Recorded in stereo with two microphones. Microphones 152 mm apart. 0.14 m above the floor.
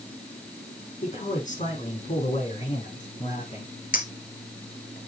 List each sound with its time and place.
1.0 s a man speaking: 50° left (ahead or behind), 5.5 m
3.9 s a clink: 60° left (ahead or behind), 1.5 m